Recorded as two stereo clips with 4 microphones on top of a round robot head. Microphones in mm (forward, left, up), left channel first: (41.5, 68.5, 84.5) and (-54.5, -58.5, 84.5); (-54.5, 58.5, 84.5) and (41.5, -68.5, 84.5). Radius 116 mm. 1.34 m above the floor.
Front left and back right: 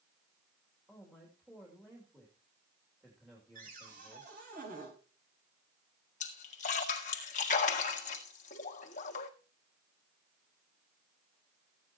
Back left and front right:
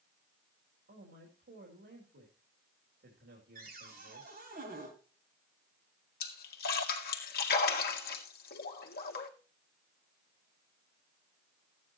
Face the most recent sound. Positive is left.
turn(degrees=95)